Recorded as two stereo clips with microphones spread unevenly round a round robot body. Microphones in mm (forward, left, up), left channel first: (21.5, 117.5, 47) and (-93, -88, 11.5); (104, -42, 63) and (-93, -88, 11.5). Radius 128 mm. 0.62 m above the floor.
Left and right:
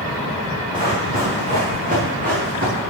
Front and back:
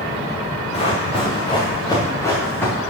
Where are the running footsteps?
45° right, 4 m; by 2.7 s 65° right, 4.5 m.